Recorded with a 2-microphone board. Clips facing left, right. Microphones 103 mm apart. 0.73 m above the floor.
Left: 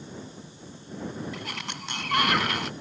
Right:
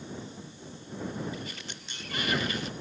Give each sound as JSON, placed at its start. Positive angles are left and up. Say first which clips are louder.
{"t": 1.3, "sound": "a sliding door", "louder": "left 4 dB", "side_deg": 80}